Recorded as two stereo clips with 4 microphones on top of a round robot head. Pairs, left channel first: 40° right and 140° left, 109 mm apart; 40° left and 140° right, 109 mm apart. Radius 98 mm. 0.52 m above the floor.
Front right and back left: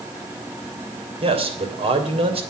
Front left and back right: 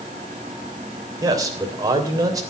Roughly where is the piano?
No piano in this recording.